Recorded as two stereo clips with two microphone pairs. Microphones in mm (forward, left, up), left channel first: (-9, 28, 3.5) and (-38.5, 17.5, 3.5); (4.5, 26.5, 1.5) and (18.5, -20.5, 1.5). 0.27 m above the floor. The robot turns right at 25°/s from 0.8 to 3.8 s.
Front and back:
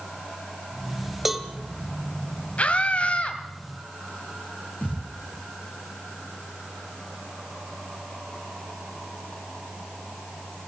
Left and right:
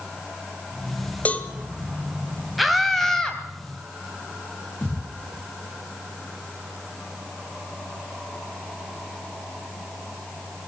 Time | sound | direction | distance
1.2 | a cowbell | 120° left | 1.6 m
2.6 | a scream | 15° left | 1.7 m
4.8 | a thud | 55° left | 7.5 m